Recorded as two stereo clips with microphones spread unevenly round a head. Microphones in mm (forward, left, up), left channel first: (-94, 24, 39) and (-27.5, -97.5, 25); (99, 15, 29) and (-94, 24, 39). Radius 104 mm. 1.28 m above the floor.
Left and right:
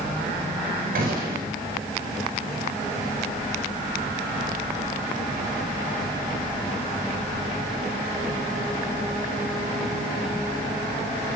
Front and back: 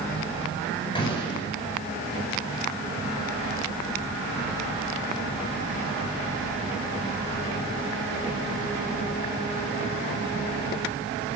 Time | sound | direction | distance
0.9 | a gunshot | 70° right | 6 m